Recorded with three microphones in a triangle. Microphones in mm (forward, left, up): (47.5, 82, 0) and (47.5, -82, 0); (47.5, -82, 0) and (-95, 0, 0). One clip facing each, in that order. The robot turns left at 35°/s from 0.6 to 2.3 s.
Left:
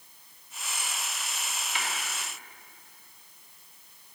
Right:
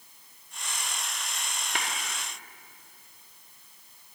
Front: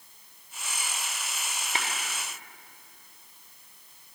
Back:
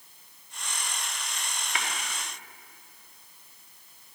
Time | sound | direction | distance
1.8 | tapping | 85° right | 1.3 m